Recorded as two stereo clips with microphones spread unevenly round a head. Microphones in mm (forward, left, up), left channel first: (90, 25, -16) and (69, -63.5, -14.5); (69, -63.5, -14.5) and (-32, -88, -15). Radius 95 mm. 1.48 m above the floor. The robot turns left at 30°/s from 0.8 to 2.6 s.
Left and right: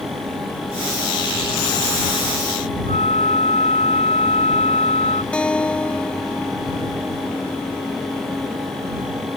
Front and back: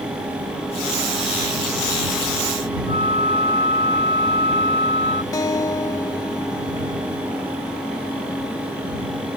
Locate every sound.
2.9 s a flute: 130° left
5.3 s a guitar: 5° left